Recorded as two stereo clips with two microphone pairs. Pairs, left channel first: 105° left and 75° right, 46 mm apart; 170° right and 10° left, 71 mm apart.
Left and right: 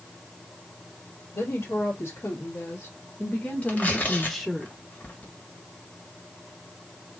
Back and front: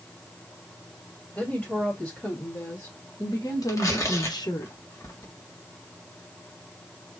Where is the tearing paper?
150° left, 1.5 m.